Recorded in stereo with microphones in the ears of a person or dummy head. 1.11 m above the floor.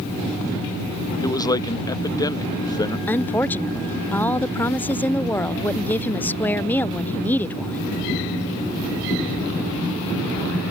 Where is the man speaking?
20° left (ahead or behind).